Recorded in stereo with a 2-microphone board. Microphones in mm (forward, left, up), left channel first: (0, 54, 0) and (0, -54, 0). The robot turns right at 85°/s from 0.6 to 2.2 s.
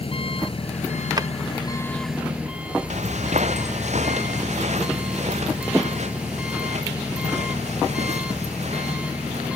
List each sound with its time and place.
0.0 s an engine running: 55° left; by 9.6 s 170° right
1.2 s a drawer: 35° right (ahead or behind); by 1.3 s 30° right (ahead or behind)
2.9 s footsteps: 80° right; by 9.5 s 75° right (ahead or behind)